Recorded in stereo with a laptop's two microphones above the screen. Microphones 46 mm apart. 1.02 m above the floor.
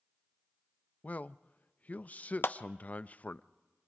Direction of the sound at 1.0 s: 35° left (ahead or behind).